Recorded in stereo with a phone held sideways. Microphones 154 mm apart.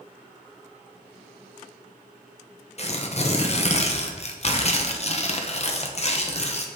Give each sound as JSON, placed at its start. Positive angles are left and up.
{"t": 2.8, "sound": "tearing paper", "side_deg": 45, "distance_m": 0.7}